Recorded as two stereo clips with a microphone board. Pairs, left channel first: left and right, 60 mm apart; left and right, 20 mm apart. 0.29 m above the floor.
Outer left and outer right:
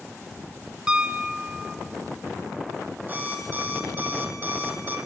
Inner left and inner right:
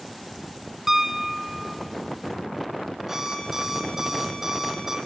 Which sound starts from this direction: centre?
A piano, at 0.9 s.